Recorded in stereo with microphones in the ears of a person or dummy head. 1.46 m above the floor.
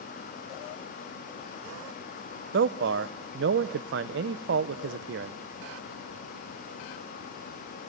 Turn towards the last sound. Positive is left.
turn(degrees=-75)  # may be behind; listen again after turning